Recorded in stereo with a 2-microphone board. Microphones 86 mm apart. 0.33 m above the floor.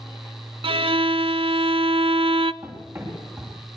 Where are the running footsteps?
35° right (ahead or behind), 9 m.